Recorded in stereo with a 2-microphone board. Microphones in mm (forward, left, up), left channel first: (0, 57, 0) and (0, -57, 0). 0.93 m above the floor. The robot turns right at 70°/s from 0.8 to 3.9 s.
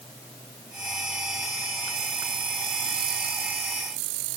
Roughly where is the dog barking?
No dog barking in this recording.